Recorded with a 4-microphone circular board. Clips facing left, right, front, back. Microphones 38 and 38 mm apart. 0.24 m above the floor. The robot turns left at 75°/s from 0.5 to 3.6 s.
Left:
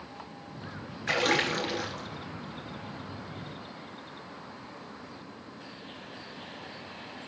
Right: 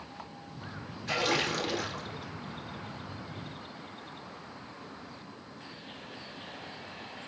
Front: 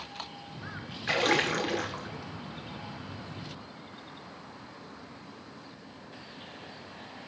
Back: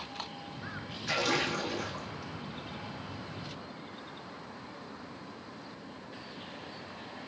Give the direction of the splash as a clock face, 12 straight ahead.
10 o'clock.